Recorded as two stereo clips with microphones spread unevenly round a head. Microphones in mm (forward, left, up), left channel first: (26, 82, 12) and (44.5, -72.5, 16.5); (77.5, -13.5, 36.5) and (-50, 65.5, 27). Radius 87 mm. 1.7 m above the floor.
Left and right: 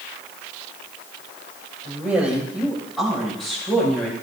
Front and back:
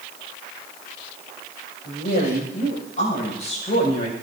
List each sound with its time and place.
1.9 s a woman speaking: 5° right, 8 m; by 4.1 s 20° left, 8 m